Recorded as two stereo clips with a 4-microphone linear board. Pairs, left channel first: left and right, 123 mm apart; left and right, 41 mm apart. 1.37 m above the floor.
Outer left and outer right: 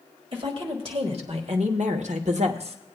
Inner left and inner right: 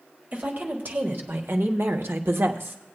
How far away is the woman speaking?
About 2 m.